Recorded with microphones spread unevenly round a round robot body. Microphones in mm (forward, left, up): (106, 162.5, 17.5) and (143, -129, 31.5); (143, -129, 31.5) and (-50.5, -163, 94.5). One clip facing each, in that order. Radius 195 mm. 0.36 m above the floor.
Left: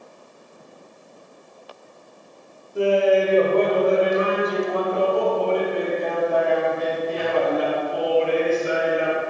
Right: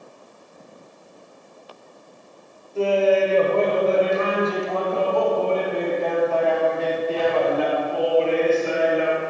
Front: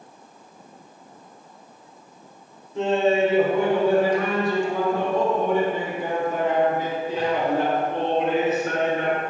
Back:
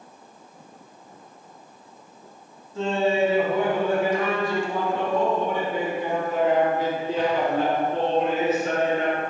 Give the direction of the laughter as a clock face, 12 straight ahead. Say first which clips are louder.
Left 1 dB, front 2 dB; 11 o'clock.